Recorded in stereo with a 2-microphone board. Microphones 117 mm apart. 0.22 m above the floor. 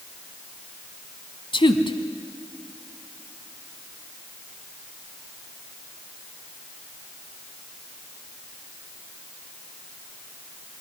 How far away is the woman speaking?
About 1.4 m.